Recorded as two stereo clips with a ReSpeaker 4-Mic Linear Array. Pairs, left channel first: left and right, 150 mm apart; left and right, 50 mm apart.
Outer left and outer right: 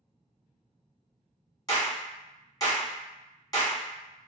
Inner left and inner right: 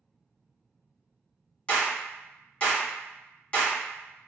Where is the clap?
25° left (ahead or behind), 1.4 m.